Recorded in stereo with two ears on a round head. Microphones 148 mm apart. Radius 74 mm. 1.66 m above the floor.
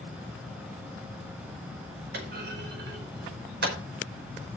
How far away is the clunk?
About 4.5 m.